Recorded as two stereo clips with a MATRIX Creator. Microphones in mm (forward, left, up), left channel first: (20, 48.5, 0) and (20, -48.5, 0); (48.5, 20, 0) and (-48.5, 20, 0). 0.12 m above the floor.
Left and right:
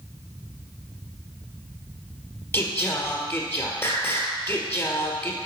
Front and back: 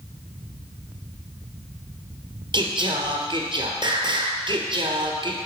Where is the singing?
150° left, 1.4 m.